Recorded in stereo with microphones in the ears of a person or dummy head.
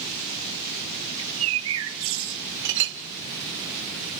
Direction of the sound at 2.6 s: 65° right (ahead or behind).